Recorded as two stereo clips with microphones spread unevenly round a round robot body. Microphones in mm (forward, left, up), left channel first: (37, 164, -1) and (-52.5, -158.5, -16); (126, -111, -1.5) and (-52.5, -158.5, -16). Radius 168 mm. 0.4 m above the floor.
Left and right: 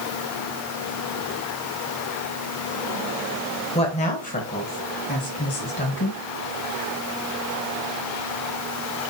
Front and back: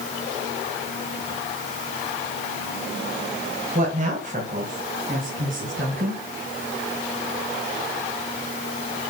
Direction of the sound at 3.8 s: 150° left.